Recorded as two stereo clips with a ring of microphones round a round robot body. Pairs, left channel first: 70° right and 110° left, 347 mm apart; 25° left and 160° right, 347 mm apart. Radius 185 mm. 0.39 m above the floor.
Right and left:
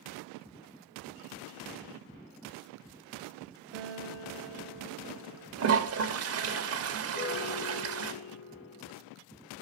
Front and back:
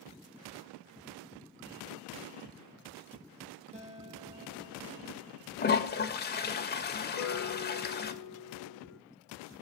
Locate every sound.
3.7 s a guitar: 130° left, 5 m
5.6 s a toilet flushing: 75° left, 2 m
7.1 s a piano: 15° right, 3 m